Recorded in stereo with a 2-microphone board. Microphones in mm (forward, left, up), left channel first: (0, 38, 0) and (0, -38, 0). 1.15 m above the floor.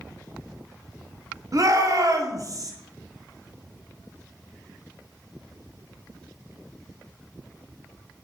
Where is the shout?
50° right (ahead or behind), 0.8 m.